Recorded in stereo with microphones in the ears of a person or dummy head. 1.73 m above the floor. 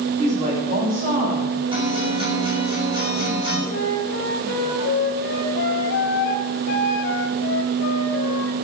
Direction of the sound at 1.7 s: 30° right (ahead or behind).